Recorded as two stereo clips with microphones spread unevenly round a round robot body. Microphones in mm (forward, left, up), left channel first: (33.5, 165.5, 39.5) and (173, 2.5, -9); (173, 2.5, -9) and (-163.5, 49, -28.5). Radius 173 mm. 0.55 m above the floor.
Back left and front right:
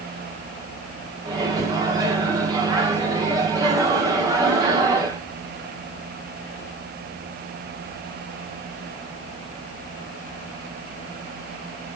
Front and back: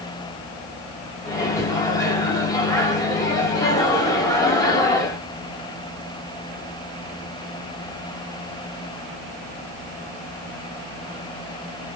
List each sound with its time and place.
1.2 s a microwave: 85° right, 0.8 m